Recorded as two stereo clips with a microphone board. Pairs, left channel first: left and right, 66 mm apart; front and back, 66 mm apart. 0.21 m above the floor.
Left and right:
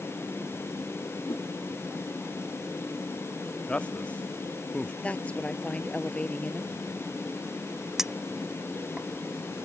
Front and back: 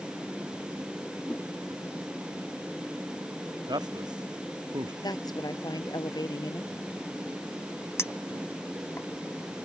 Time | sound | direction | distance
1.3 | a whoosh | 70° left | ?
3.7 | a man speaking | 165° left | ?
5.0 | a woman speaking | 20° left | ?
8.0 | a clink | 10° right | ?